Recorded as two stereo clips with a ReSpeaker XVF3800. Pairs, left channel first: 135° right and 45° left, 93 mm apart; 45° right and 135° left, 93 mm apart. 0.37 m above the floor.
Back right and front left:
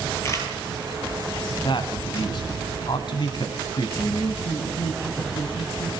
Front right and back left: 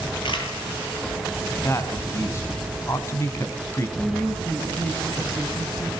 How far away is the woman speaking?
About 7 m.